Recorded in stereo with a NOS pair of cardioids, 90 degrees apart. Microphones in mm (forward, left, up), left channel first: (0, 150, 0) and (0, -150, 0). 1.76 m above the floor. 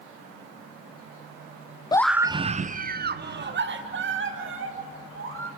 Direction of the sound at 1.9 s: 15° left.